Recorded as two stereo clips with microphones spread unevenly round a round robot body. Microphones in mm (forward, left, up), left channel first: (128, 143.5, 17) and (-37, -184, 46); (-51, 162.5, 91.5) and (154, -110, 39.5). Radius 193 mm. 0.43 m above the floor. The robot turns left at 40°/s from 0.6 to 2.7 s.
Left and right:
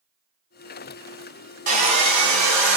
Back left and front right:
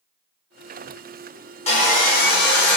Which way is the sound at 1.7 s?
165° right.